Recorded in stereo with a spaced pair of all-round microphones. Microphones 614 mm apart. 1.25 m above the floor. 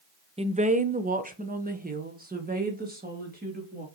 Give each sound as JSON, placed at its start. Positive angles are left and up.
{"t": 0.4, "sound": "a woman speaking", "side_deg": -10, "distance_m": 0.5}